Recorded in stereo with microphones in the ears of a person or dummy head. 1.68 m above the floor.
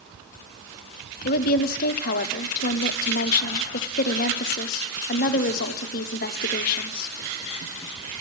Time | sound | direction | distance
1.2 | a woman speaking | 50° left (ahead or behind) | 0.7 m